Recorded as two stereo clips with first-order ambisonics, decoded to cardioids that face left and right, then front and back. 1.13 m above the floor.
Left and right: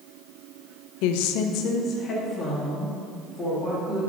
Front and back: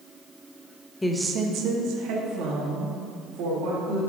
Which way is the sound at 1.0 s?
80° left.